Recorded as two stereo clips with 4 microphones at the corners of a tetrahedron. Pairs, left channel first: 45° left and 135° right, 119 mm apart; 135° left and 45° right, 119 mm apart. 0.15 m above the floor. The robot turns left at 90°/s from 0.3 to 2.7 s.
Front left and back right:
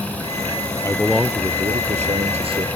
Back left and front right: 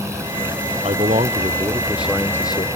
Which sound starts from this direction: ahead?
A man speaking, at 0.8 s.